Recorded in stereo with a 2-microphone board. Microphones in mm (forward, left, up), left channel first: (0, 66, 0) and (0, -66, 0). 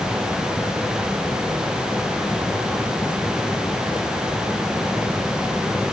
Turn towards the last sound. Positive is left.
No sound to turn to.